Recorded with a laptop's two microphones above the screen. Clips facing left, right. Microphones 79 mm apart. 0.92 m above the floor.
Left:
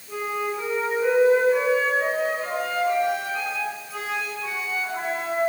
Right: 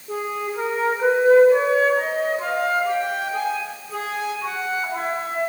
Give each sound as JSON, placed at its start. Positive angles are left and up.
{"t": 0.1, "sound": "a flute", "side_deg": -50, "distance_m": 4.0}